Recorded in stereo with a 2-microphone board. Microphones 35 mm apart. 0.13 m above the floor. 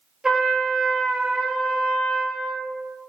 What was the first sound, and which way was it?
A trumpet, 20° right (ahead or behind).